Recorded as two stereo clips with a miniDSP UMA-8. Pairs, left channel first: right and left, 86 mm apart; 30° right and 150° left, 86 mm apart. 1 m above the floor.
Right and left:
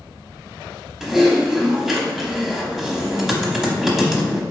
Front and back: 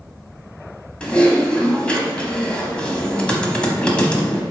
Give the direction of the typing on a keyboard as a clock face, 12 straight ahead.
11 o'clock.